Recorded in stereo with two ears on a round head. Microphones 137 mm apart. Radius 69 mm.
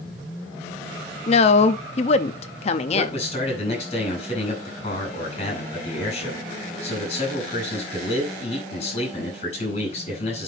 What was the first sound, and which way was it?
A woman speaking, 40° left (ahead or behind).